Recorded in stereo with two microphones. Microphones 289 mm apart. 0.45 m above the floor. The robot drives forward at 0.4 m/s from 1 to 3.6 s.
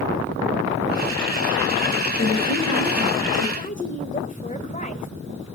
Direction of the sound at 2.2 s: 65° left (ahead or behind).